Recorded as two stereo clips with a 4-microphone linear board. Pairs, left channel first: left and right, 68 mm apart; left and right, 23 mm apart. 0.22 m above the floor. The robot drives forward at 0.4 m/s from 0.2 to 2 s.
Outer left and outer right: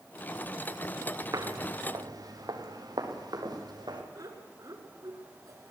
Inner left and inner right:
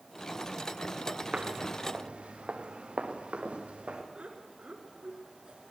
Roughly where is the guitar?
No guitar in this recording.